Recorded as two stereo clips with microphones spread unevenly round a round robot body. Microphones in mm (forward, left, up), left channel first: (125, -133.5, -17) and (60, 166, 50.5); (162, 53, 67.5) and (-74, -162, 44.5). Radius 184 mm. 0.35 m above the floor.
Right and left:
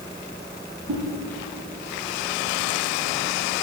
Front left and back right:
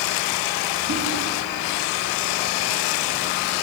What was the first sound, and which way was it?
A whoosh, 175° left.